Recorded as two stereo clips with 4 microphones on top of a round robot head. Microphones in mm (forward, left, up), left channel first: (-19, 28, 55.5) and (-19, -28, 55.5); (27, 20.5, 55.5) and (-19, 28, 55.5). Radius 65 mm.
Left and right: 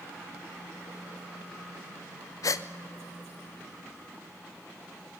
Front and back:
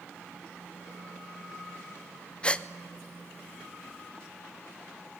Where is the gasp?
60° left, 0.8 m.